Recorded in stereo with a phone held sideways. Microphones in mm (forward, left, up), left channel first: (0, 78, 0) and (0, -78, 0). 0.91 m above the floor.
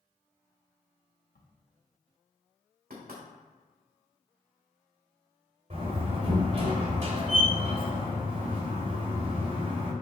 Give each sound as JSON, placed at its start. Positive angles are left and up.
{"t": 1.4, "sound": "a crack", "side_deg": 75, "distance_m": 1.0}
{"t": 2.9, "sound": "knocking", "side_deg": -80, "distance_m": 2.0}
{"t": 5.7, "sound": "a door slam", "side_deg": -45, "distance_m": 3.0}